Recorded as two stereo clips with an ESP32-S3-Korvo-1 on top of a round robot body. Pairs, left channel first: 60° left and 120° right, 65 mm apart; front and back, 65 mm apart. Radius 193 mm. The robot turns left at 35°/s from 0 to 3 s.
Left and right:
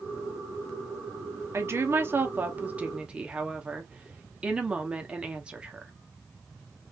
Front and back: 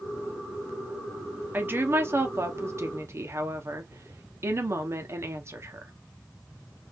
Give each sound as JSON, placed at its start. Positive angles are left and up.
{"t": 1.5, "sound": "a woman speaking", "azimuth_deg": -135, "distance_m": 1.3}